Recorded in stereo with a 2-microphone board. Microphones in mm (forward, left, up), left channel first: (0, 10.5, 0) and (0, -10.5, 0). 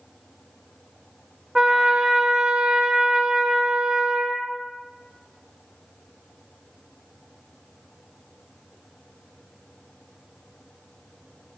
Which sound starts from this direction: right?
A trumpet, at 1.6 s.